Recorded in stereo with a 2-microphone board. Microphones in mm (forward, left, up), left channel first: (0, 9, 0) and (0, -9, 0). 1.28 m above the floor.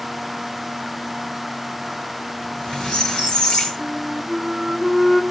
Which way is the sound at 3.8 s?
10° right (ahead or behind).